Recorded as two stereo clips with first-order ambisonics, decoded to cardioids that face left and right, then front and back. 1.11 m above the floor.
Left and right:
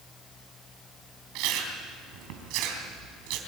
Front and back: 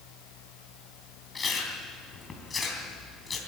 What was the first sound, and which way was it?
Chewing, 75° right.